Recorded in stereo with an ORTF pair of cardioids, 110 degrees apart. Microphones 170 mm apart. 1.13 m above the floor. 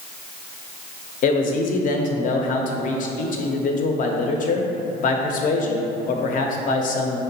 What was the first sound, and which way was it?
A man speaking, 50° left.